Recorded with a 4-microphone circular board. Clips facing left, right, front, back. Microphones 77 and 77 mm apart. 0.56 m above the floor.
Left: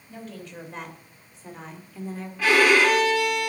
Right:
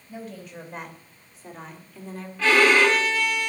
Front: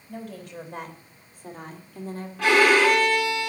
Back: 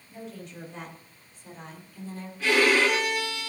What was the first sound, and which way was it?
A woman speaking, 5° right.